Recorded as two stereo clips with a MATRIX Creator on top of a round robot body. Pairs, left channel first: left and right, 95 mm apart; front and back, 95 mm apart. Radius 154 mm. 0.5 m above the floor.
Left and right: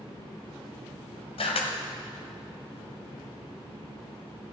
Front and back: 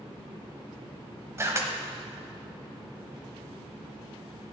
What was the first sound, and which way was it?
A camera shutter, 115° left.